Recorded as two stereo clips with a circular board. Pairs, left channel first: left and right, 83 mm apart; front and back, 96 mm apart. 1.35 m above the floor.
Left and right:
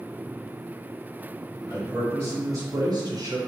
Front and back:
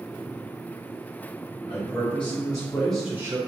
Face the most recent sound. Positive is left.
turn(degrees=-130)